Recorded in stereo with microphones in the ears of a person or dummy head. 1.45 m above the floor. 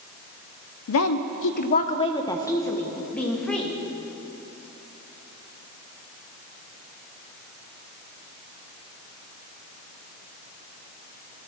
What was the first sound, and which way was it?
A woman speaking, 75° left (ahead or behind).